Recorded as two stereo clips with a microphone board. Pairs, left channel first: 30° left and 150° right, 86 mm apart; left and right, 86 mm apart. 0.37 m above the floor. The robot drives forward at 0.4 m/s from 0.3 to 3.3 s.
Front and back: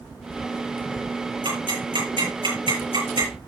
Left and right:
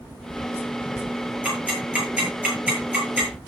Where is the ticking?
165° right, 7.5 m.